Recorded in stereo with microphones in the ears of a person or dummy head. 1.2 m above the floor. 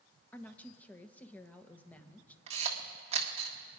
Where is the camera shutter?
40° right (ahead or behind), 1.5 m.